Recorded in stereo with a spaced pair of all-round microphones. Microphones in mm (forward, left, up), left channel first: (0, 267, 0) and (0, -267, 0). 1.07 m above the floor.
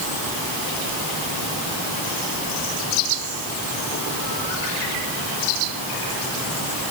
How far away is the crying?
No crying in this recording.